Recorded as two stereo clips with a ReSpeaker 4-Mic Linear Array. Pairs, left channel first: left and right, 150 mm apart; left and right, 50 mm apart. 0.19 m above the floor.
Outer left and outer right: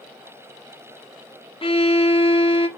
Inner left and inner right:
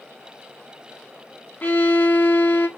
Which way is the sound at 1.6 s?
35° left (ahead or behind).